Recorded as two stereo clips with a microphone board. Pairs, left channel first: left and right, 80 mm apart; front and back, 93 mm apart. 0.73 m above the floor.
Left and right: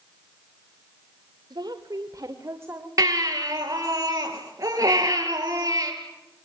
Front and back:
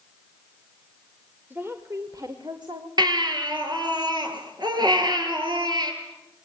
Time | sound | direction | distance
1.5 | a woman speaking | 110° right | 2 m
3.0 | a baby crying | 140° right | 5 m